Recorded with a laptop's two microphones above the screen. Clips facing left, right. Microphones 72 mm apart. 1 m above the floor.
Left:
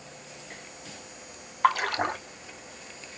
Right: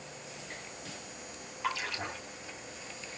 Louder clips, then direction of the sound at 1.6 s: Left 12 dB; 65° left (ahead or behind).